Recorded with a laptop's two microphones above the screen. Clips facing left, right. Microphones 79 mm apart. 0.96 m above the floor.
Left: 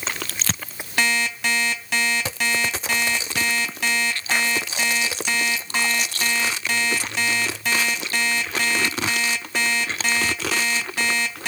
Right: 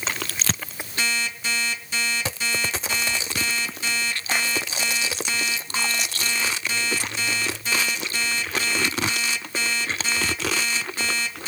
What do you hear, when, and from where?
1.0 s an alarm clock: 80° left, 2.5 m